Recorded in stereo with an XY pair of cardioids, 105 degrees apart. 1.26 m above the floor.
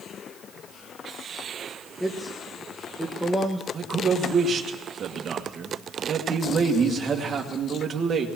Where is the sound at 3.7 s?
45° right, 2.0 m.